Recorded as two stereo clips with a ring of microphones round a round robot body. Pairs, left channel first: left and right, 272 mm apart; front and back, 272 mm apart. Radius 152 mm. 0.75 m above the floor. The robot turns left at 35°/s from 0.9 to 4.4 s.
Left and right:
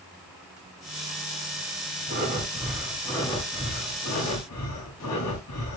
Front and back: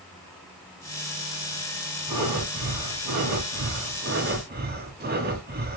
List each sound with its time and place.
2.1 s breathing: 150° right, 3 m; by 5.8 s 125° left, 3 m